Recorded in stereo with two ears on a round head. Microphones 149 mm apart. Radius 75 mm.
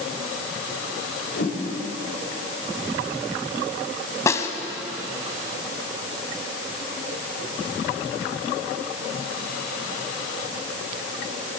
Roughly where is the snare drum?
Centre.